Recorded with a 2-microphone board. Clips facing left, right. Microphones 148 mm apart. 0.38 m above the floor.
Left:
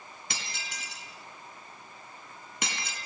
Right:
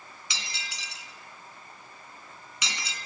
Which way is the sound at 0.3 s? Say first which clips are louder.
Left 1 dB; 55° left (ahead or behind).